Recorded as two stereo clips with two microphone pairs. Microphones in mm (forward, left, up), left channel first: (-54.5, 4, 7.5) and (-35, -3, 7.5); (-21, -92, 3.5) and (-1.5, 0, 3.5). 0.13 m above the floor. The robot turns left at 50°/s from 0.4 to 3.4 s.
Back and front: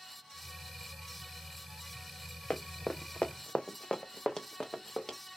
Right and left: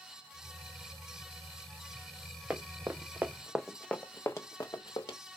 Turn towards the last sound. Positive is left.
turn(degrees=-145)